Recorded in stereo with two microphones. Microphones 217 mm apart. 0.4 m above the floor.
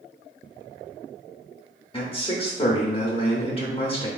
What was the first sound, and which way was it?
A man speaking, 25° left (ahead or behind).